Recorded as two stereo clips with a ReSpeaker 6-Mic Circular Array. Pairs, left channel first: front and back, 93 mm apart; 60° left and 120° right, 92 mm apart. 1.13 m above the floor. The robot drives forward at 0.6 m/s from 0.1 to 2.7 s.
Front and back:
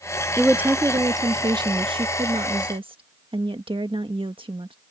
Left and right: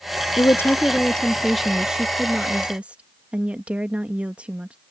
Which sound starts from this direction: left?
A woman speaking, at 0.4 s.